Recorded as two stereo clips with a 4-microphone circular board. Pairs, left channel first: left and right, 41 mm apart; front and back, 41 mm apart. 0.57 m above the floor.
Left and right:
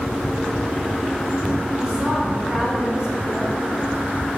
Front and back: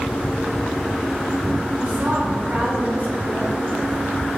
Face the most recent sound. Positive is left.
turn(degrees=-150)